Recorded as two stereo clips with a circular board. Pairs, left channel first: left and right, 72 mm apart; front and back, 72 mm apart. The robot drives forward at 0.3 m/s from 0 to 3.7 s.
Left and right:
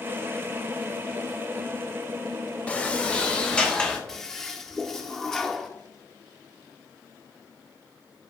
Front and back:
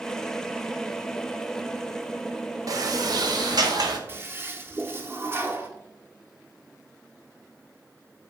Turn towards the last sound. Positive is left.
turn(degrees=165)